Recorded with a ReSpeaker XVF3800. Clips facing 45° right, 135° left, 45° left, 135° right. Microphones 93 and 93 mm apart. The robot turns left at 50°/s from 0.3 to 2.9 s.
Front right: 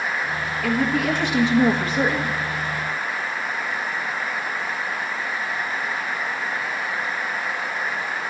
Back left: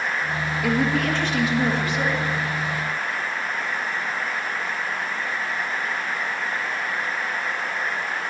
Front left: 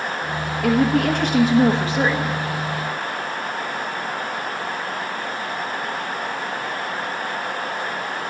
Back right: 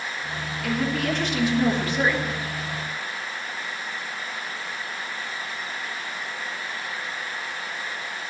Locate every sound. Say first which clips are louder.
0.6 s a woman speaking: front right 1 dB, front left 8 dB; 60° left, 1.2 m; by 2.4 s 30° right, 1.2 m